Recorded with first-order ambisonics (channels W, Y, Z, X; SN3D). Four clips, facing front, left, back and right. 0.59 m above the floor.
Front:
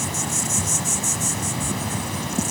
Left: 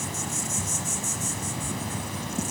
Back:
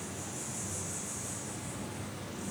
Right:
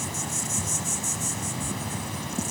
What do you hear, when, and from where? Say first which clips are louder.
0.0 s an insect: even, front 15 dB; straight ahead, 1.3 m